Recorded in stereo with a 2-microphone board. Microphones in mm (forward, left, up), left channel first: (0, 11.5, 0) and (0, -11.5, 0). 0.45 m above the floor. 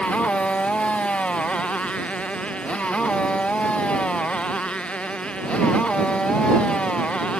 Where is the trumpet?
No trumpet in this recording.